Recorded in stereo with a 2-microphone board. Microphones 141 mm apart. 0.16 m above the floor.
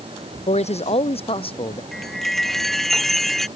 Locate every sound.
0.5 s a man speaking: 50° left (ahead or behind); by 1.8 s 40° left (ahead or behind)
1.9 s a chime: centre (ahead or behind)